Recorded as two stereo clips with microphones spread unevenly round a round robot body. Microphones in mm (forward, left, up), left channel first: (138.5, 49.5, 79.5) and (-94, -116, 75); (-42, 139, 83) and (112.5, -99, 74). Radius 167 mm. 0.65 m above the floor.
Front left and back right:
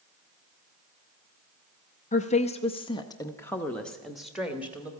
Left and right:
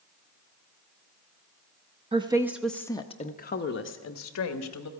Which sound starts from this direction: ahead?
A woman speaking, at 2.1 s.